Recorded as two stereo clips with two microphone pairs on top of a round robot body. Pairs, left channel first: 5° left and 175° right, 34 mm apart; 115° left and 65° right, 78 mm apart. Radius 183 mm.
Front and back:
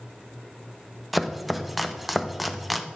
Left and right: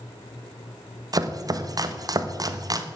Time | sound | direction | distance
1.1 | chopping | 90° right | 1.4 m